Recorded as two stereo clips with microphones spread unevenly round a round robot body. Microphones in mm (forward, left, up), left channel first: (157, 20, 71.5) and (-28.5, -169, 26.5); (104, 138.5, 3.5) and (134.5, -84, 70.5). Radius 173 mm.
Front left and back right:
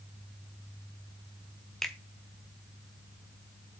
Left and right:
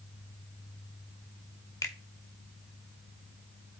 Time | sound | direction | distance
1.8 | a finger snap | 145° left | 1.1 m